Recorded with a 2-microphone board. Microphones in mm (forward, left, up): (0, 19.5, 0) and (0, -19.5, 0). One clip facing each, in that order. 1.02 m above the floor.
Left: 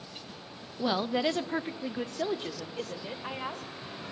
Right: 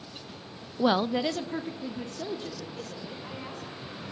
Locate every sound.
0.8 s a woman speaking: 40° right (ahead or behind), 0.5 m; by 3.6 s 45° left (ahead or behind), 4 m